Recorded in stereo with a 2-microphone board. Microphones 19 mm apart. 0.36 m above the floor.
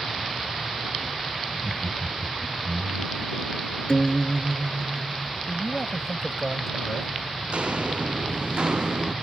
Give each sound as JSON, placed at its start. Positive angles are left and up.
{"t": 1.5, "sound": "laughter", "side_deg": 15}
{"t": 3.9, "sound": "a guitar", "side_deg": 50}
{"t": 5.5, "sound": "a man speaking", "side_deg": 25}
{"t": 7.5, "sound": "footsteps", "side_deg": -70}